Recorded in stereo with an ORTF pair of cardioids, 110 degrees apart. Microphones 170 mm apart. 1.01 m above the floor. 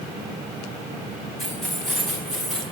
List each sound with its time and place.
1.4 s keys jangling: straight ahead, 4.5 m